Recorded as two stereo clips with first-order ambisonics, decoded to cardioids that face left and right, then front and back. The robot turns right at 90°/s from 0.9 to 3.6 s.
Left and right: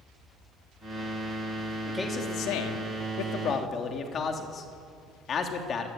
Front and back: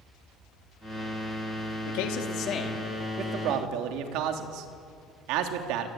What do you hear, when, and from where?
1.9 s a man speaking: 5° right, 3 m; by 5.9 s 155° left, 3 m